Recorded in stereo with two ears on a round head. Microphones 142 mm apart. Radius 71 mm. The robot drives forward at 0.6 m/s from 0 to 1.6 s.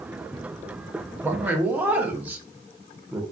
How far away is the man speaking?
About 0.6 m.